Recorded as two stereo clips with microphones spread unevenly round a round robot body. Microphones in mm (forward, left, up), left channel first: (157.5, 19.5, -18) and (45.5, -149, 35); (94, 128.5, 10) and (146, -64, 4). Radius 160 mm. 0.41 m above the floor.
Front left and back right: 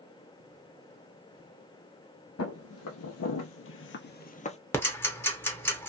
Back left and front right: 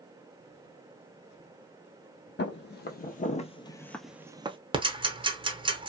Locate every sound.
2.4 s footsteps: 80° left, 1.1 m; by 4.6 s 10° right, 0.7 m
4.7 s ticking: 10° right, 1.0 m